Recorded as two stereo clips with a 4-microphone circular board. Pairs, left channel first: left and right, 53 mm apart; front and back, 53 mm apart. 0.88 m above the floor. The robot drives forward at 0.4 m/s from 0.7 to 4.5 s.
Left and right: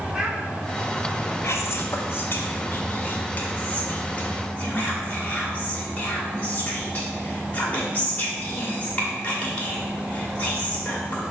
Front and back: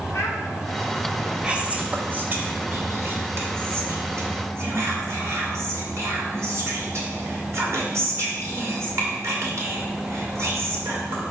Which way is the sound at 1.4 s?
110° left.